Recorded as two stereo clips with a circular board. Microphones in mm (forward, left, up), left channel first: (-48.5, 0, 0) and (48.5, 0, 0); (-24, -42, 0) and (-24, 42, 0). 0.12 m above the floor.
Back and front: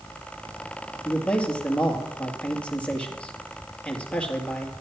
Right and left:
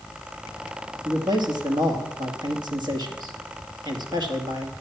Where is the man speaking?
105° left, 2 m.